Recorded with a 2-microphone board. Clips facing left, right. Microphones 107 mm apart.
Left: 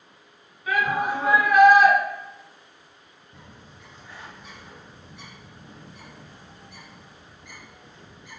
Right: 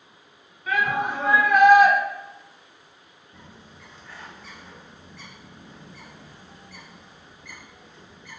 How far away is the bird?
About 1.1 m.